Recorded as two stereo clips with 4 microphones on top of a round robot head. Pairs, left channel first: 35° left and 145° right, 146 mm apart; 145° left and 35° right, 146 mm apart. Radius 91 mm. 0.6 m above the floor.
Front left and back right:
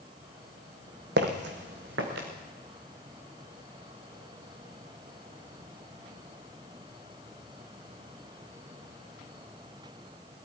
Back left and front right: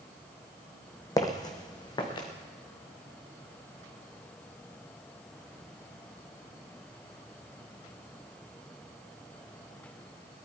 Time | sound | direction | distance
1.2 | footsteps | 150° right | 1.3 m